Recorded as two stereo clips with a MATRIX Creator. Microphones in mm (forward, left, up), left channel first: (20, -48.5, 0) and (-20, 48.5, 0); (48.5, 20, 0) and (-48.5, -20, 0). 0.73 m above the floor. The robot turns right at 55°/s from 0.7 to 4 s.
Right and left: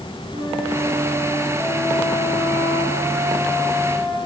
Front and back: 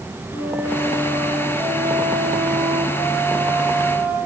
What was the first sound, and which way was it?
A flute, 90° left.